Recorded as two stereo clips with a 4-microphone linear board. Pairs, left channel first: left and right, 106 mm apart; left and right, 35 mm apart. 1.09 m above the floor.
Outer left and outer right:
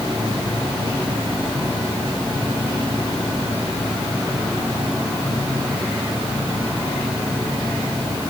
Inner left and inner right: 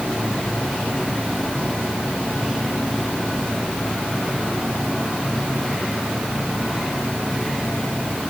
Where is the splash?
I don't hear a splash.